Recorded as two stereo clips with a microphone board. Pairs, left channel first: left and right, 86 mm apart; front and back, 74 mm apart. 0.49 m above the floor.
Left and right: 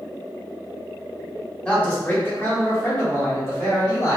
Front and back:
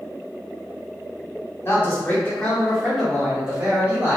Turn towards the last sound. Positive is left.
turn(degrees=125)